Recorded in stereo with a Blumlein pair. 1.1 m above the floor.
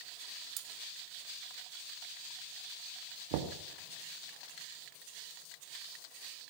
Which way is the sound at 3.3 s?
50° right.